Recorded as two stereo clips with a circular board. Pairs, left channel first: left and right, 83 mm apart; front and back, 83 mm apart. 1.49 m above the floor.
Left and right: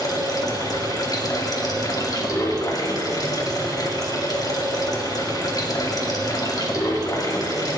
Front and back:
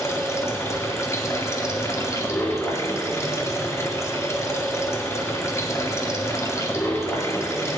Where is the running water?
50° left, 2 m.